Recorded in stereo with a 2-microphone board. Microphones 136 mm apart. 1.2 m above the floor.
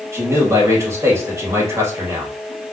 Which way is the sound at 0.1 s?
20° right (ahead or behind).